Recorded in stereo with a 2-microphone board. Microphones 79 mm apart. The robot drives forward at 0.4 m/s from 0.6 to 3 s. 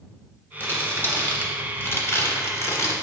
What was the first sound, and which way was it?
Crumpling, 20° left (ahead or behind).